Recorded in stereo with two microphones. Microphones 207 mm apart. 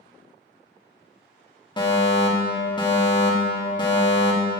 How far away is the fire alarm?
About 1.0 m.